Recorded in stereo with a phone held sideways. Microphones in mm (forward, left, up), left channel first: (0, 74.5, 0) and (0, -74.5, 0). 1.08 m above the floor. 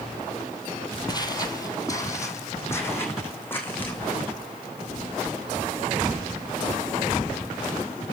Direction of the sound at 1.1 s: 25° left (ahead or behind).